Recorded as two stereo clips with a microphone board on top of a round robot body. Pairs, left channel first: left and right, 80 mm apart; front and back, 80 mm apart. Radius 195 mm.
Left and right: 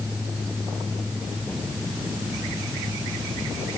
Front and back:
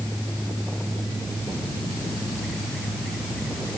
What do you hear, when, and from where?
Only background noise.